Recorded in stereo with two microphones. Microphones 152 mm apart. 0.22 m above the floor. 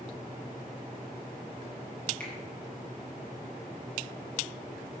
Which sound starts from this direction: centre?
A finger snap, at 2.2 s.